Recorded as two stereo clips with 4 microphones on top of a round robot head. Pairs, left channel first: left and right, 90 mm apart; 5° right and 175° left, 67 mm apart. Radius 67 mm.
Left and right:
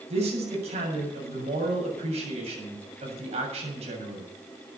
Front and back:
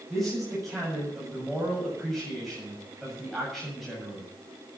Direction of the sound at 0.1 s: 95° right.